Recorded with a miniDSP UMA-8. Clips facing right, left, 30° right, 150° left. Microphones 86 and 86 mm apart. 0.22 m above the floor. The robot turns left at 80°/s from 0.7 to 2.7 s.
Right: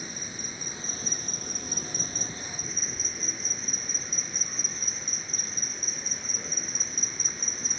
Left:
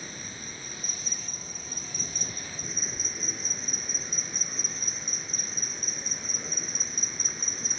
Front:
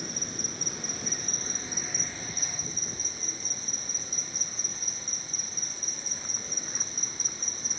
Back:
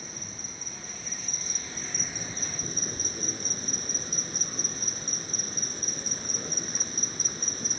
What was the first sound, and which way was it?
An insect, 20° right.